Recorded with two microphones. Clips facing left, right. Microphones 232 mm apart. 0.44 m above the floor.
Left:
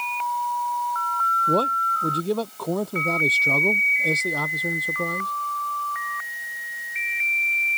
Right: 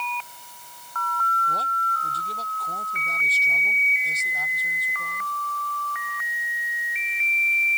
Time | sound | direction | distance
1.5 | a man speaking | 70° left (ahead or behind) | ?